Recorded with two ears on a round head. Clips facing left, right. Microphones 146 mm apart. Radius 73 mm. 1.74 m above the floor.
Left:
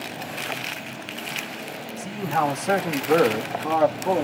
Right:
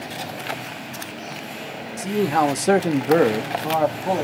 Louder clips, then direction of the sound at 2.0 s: Right 5 dB; 45° right (ahead or behind).